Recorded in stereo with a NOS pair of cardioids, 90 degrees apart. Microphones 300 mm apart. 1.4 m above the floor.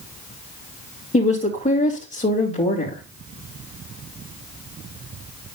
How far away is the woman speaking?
About 2.5 m.